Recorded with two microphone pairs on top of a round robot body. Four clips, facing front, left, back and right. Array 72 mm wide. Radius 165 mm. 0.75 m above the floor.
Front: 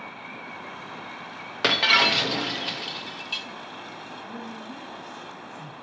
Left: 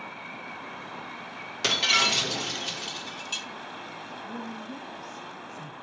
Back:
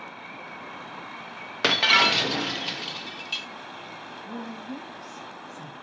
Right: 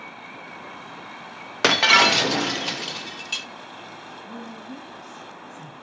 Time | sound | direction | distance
1.6 | breaking glass | 95° right | 0.6 m
4.2 | a woman speaking | 175° left | 2.5 m